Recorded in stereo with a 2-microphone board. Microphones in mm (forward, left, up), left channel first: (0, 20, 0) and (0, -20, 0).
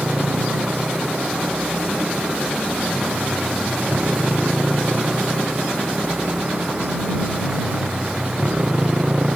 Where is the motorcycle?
45° right (ahead or behind); by 9.4 s 30° right (ahead or behind).